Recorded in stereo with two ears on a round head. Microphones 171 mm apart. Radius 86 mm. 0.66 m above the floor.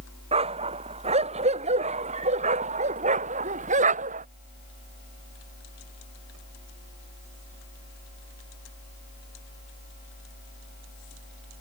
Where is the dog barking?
35° right (ahead or behind); by 4.3 s 40° right (ahead or behind).